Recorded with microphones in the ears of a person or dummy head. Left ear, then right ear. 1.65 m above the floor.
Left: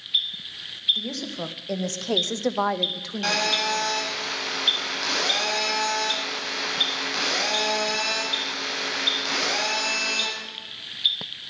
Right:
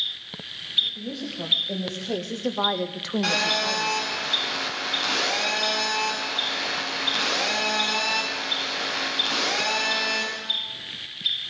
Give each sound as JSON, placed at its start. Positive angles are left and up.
{"t": 0.9, "sound": "a woman speaking", "side_deg": 70, "distance_m": 1.8}
{"t": 3.2, "sound": "a phone buzzing", "side_deg": 5, "distance_m": 6.5}